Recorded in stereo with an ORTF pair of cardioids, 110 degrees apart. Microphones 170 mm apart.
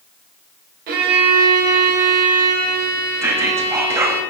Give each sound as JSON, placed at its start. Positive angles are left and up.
{"t": 0.9, "sound": "a violin", "azimuth_deg": -70, "distance_m": 0.8}
{"t": 3.2, "sound": "whispering", "azimuth_deg": -15, "distance_m": 0.6}